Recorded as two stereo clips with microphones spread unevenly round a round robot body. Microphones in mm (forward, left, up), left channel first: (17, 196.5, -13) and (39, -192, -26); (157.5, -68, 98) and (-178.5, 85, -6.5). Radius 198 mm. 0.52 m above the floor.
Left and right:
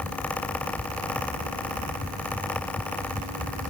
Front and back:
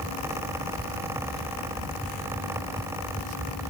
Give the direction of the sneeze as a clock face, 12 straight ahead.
No sneeze in this recording.